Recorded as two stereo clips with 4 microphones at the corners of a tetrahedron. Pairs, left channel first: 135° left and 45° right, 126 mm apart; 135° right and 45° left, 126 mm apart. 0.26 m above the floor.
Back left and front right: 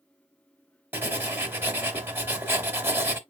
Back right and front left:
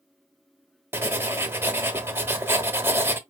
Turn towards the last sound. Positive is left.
turn(degrees=-5)